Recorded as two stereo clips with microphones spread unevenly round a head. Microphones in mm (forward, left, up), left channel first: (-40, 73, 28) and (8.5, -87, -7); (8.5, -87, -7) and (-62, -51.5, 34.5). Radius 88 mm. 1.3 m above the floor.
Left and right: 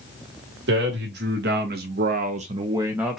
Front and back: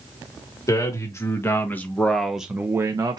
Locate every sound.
0.7 s a man speaking: 65° right, 1.6 m; by 3.2 s 160° right, 0.8 m